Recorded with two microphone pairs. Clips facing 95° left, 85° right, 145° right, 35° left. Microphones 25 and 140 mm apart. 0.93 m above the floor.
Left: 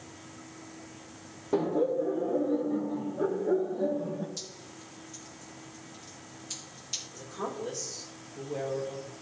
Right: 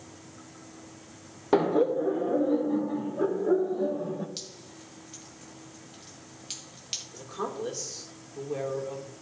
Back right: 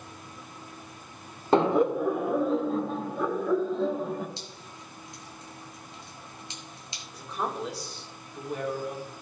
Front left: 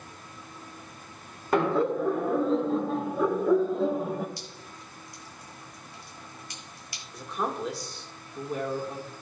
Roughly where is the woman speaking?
Ahead right.